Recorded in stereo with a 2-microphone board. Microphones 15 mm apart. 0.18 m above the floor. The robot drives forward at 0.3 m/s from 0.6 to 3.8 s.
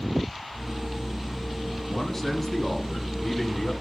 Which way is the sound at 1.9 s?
25° left (ahead or behind).